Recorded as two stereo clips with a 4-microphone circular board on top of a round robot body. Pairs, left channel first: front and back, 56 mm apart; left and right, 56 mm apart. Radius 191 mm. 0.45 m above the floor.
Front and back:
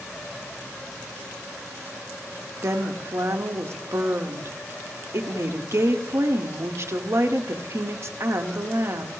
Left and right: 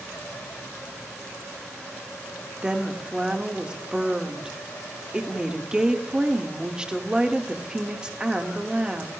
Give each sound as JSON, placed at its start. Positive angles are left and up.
{"t": 2.6, "sound": "a woman speaking", "azimuth_deg": -165, "distance_m": 1.7}